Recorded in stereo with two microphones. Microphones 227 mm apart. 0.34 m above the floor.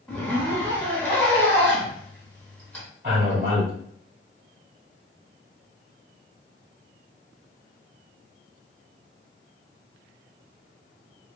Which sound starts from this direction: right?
A man speaking, at 3.0 s.